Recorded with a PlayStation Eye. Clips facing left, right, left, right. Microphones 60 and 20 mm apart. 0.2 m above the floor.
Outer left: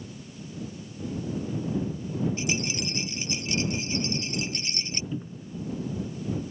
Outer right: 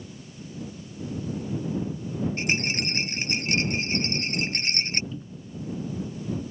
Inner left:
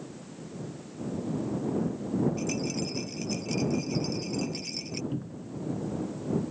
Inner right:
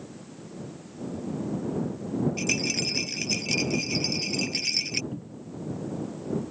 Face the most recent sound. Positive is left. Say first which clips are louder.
# outer left 3 dB, inner left 2 dB
turn(degrees=30)  # may be behind; listen again after turning